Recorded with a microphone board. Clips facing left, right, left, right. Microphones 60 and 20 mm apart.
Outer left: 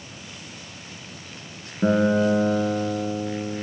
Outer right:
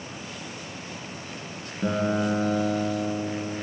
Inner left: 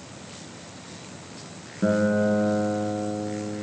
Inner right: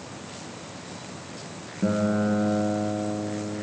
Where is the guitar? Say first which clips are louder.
Outer left 6 dB, inner left 2 dB; 25° left (ahead or behind), 1.5 m.